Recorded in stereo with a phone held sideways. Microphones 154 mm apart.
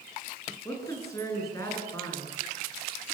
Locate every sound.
0.7 s a woman speaking: 20° left (ahead or behind), 10 m